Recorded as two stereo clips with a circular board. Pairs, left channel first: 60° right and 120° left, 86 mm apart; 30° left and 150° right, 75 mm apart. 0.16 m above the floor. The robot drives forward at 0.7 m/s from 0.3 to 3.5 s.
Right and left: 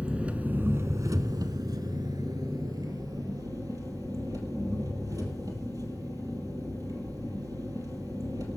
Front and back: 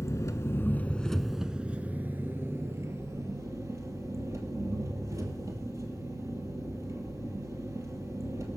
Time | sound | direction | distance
0.0 | an engine running | 50° left | 0.8 m